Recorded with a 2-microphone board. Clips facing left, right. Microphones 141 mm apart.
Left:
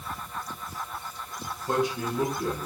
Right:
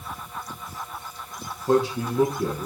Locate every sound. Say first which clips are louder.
1.7 s a man speaking: right 6 dB; 30° right (ahead or behind), 4 m